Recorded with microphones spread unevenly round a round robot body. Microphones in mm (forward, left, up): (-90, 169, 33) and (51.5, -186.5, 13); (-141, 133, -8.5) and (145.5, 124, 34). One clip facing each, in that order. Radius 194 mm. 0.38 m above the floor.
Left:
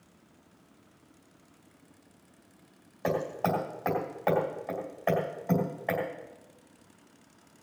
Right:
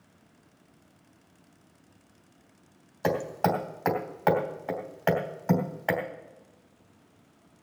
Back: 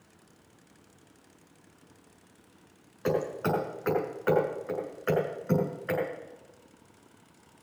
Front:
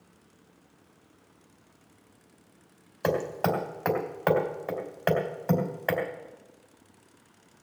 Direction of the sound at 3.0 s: 20° right.